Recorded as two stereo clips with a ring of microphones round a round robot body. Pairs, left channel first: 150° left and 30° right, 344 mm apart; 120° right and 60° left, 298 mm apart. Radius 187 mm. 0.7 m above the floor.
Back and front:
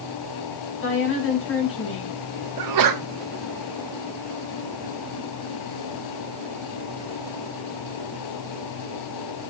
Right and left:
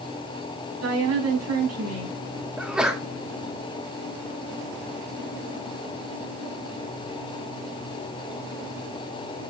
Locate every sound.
0.8 s a woman speaking: 95° left, 5.5 m
2.6 s a sneeze: 25° right, 1.5 m